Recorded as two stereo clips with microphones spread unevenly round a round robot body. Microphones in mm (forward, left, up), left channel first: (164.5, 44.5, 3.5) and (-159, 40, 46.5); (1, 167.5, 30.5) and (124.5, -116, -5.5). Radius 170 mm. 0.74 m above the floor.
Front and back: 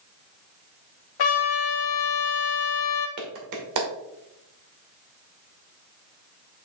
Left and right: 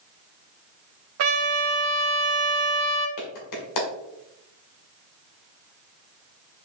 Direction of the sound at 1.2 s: 30° right.